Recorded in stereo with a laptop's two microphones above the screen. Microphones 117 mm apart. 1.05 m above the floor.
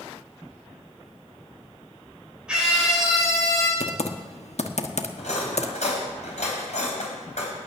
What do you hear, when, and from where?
2.5 s a scream: 10° right (ahead or behind), 5 m; by 3.7 s centre (ahead or behind), 6 m
3.8 s typing on a keyboard: 70° left (ahead or behind), 1.1 m
5.2 s cutlery clinking: 75° left (ahead or behind), 4 m